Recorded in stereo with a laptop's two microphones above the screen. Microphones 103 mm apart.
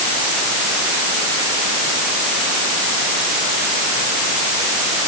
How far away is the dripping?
No dripping in this recording.